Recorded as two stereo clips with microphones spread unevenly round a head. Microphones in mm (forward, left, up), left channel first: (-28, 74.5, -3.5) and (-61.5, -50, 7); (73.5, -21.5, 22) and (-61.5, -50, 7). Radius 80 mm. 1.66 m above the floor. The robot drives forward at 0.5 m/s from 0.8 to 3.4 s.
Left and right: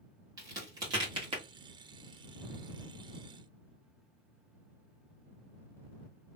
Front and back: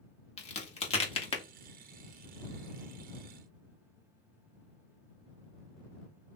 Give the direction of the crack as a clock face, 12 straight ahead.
1 o'clock.